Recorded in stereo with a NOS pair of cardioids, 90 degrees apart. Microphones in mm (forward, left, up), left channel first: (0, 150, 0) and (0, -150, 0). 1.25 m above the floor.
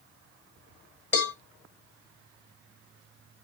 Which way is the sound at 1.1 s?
35° left.